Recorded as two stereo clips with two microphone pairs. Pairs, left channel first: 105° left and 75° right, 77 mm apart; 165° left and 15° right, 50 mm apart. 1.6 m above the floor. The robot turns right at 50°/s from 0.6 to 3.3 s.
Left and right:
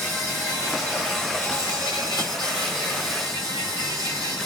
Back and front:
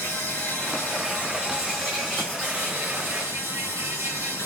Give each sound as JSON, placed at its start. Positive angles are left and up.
{"t": 0.0, "sound": "an insect", "azimuth_deg": -165, "distance_m": 2.5}